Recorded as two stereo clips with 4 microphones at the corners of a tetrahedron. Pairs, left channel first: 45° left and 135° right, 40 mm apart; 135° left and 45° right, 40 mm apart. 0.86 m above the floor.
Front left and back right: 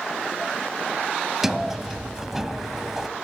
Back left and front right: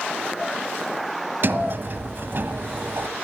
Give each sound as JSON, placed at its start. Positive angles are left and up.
{"t": 1.4, "sound": "a sliding door", "azimuth_deg": -55, "distance_m": 1.0}